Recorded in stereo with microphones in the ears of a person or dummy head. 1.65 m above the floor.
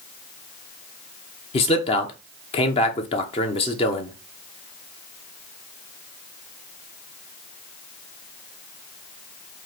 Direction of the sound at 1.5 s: 35° left (ahead or behind).